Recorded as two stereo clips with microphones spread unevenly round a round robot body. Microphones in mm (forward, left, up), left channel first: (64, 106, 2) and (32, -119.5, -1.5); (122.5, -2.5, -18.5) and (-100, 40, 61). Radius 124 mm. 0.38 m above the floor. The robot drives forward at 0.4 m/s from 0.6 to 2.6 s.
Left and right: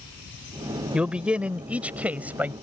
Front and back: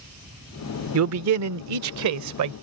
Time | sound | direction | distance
0.9 | a man speaking | straight behind | ?